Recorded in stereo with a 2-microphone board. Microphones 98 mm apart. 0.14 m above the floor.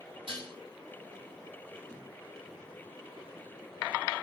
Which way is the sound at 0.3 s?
65° right (ahead or behind).